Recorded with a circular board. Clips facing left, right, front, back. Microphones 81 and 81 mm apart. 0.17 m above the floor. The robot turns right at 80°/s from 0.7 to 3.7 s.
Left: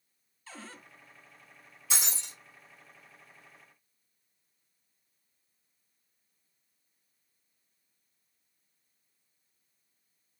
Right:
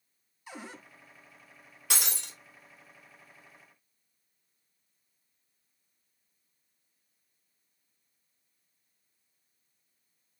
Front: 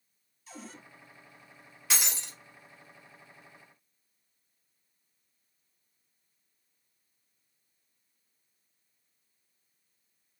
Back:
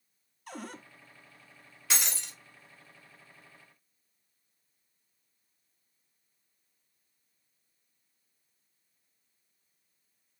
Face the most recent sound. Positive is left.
turn(degrees=50)